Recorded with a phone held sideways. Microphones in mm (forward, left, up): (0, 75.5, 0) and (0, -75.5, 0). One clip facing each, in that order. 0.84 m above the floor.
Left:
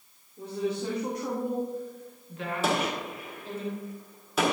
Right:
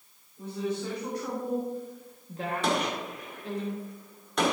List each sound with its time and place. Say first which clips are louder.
0.4 s a woman speaking: left 2 dB; 35° left (ahead or behind), 2.5 m; by 3.6 s 75° right (ahead or behind), 2.5 m
2.6 s a gunshot: left 1 dB; 5° left (ahead or behind), 1.5 m